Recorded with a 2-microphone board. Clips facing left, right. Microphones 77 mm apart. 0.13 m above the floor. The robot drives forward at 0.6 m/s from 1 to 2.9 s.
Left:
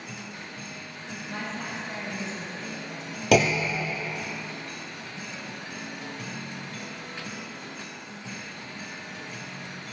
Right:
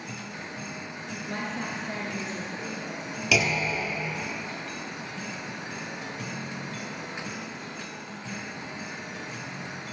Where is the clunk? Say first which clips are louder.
Left 5 dB; 50° left (ahead or behind), 0.6 m.